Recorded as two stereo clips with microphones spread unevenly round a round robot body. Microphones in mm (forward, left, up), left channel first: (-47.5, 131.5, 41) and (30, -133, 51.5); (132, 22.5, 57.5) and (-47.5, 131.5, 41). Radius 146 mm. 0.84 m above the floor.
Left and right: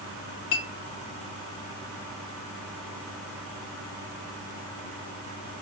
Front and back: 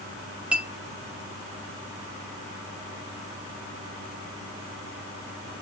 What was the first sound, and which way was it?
A clink, 65° left.